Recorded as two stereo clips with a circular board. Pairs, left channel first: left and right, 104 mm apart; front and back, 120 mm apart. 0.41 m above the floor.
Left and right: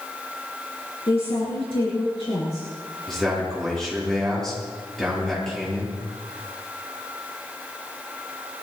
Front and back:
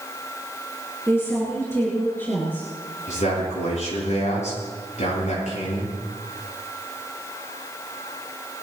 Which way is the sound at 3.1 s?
5° left.